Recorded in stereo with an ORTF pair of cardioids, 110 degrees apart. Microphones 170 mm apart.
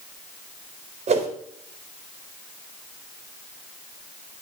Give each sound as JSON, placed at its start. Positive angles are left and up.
{"t": 1.1, "sound": "a whoosh", "azimuth_deg": -45, "distance_m": 3.5}